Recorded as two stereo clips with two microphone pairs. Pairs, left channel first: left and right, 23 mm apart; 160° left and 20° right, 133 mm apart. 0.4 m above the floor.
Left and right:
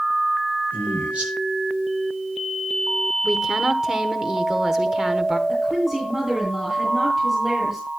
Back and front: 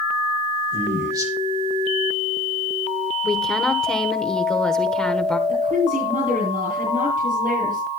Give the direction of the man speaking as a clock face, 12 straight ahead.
3 o'clock.